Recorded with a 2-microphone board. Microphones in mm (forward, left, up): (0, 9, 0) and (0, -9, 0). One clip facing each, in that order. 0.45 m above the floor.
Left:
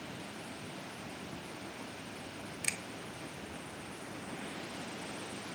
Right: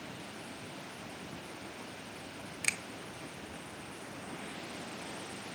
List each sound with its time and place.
2.6 s a finger snap: 20° right (ahead or behind), 0.7 m